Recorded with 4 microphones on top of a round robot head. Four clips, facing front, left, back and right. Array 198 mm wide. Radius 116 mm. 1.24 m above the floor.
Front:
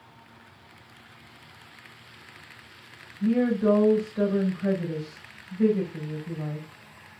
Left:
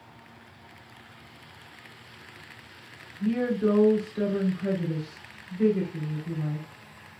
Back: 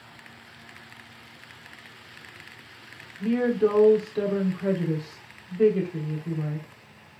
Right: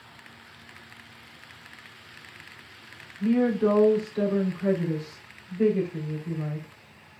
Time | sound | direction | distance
3.2 | a woman speaking | 170° right | 4 m